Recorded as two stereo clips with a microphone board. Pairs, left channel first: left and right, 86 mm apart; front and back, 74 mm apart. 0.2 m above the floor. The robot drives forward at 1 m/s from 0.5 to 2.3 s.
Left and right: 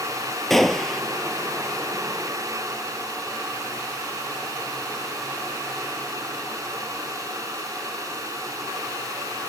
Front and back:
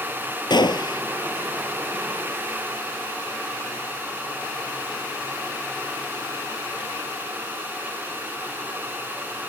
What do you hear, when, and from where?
0.5 s a gunshot: 5° left